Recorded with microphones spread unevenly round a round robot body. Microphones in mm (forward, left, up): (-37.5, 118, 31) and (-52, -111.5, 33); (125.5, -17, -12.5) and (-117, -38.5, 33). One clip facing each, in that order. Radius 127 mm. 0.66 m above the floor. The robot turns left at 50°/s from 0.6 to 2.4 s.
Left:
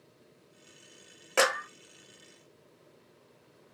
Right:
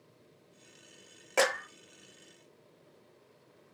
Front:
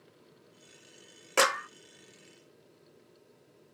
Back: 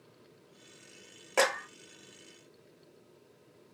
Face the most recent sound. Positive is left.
turn(degrees=-40)